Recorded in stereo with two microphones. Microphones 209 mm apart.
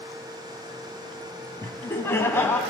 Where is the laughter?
10° left (ahead or behind), 1.5 m.